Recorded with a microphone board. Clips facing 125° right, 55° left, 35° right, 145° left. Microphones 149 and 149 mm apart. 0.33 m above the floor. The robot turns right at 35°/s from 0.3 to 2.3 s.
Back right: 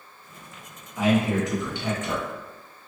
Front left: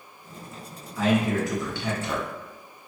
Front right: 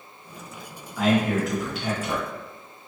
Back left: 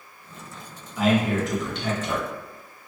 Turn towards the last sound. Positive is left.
turn(degrees=-95)